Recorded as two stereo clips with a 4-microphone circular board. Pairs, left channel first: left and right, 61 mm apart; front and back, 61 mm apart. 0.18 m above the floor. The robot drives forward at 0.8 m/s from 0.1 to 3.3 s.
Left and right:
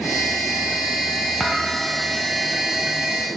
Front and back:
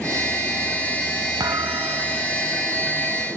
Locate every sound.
1.4 s a thud: 175° left